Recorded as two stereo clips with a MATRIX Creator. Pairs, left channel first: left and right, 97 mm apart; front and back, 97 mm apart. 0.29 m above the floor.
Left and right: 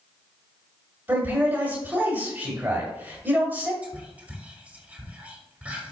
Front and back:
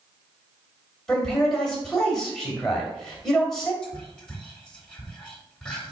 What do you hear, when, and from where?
1.1 s a man speaking: 70° right, 1.5 m
3.8 s whispering: 55° right, 0.9 m